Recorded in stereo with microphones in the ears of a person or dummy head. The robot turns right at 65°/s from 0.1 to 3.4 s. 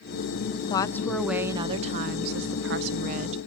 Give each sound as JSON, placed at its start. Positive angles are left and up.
{"t": 0.6, "sound": "a woman speaking", "azimuth_deg": 140, "distance_m": 0.7}